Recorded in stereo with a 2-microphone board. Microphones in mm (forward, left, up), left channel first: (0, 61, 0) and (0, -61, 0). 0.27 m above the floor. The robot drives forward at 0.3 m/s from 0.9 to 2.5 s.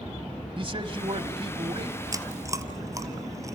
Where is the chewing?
25° right (ahead or behind), 1.4 m.